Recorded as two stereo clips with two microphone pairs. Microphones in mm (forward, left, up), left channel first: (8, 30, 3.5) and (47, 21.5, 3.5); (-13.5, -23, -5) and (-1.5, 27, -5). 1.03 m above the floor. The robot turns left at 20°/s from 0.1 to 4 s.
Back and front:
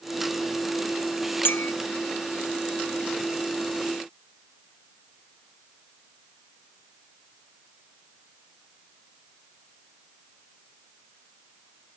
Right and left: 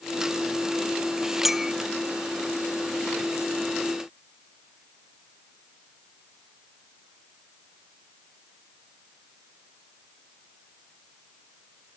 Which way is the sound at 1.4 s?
160° left.